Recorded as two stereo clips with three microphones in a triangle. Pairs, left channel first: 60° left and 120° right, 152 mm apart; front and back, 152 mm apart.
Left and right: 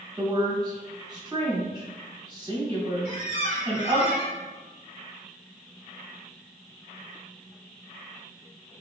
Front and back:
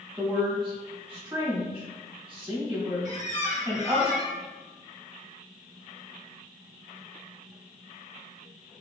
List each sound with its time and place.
0.2 s a woman speaking: 105° right, 1.3 m
3.0 s a squeak: 25° left, 0.7 m